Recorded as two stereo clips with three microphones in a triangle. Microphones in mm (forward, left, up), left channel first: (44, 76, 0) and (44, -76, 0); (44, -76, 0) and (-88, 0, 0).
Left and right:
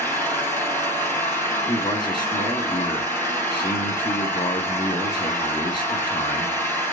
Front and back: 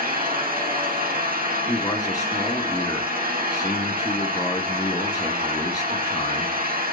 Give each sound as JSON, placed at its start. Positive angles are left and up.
{"t": 0.0, "sound": "an engine running", "azimuth_deg": 165, "distance_m": 4.0}
{"t": 1.7, "sound": "a man speaking", "azimuth_deg": 35, "distance_m": 3.0}